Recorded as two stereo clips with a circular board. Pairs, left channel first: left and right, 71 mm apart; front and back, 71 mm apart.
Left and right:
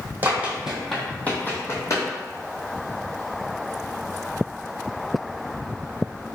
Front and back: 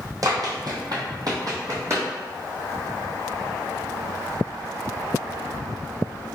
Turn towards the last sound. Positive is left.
turn(degrees=130)